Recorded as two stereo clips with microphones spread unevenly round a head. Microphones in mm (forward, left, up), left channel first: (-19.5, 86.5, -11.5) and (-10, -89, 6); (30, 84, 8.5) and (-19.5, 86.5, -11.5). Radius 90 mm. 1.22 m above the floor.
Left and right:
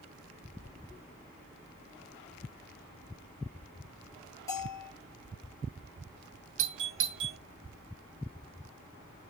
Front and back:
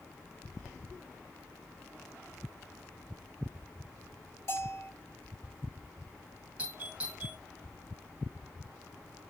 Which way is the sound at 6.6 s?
110° right.